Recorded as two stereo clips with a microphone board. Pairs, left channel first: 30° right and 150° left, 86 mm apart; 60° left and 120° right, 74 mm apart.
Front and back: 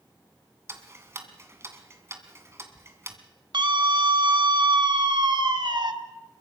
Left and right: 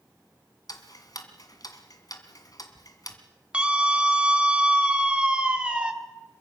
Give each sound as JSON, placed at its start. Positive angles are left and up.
{"t": 0.7, "sound": "ticking", "azimuth_deg": 90, "distance_m": 2.0}
{"t": 3.5, "sound": "a scream", "azimuth_deg": 165, "distance_m": 2.5}